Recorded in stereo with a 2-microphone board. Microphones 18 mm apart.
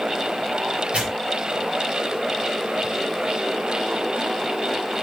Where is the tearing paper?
80° right, 5 m.